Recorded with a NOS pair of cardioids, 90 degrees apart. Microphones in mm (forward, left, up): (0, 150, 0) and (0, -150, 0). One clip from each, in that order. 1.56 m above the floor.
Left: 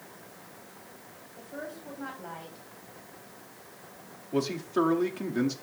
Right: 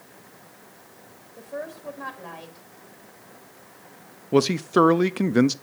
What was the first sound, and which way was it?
A woman speaking, 55° right.